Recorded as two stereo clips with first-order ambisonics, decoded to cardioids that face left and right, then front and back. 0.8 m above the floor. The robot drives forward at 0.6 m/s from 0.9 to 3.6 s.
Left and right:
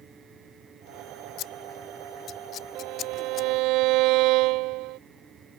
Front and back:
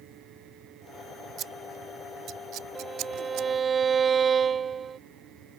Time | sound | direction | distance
1.4 | scissors | 130° left | ?
2.8 | a violin | 105° right | ?